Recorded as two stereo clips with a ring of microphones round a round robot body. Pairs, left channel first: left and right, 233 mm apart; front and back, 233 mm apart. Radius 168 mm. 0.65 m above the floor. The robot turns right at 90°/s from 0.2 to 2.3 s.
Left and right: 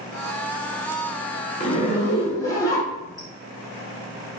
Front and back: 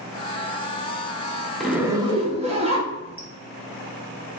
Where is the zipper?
90° left, 0.6 m; by 3.3 s 150° left, 0.6 m.